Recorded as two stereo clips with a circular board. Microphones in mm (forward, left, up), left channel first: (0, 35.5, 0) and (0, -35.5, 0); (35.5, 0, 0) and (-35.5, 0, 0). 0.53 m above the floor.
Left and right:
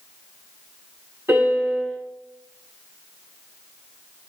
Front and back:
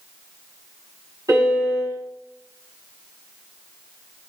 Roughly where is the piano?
Behind right.